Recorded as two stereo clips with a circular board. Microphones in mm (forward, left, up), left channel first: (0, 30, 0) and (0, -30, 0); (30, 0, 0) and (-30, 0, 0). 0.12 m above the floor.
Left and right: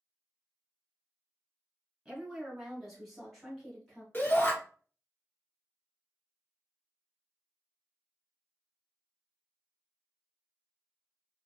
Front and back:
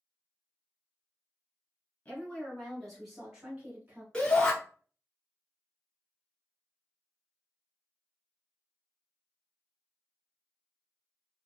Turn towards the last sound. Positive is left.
turn(degrees=65)